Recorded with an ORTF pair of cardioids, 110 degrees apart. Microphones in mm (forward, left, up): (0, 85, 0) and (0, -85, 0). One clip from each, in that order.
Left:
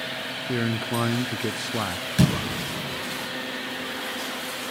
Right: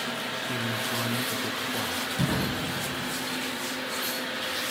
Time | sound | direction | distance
0.5 | a man speaking | 40° left | 0.5 m
2.2 | a door slam | 70° left | 9.5 m